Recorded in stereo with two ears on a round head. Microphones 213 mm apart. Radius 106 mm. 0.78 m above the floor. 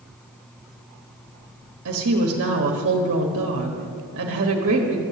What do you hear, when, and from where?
1.9 s a woman speaking: 55° right (ahead or behind), 1.5 m